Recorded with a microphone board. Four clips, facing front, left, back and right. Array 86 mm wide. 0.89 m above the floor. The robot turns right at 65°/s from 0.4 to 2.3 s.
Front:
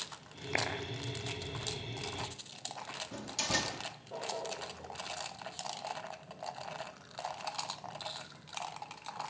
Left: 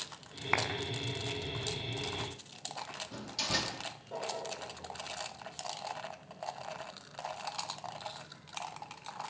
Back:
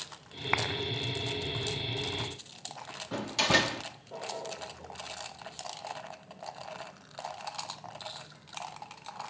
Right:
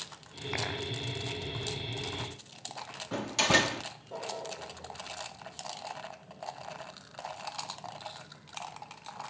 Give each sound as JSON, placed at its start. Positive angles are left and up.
{"t": 0.5, "sound": "a clap", "azimuth_deg": 145, "distance_m": 5.5}
{"t": 3.1, "sound": "a door slam", "azimuth_deg": -130, "distance_m": 1.1}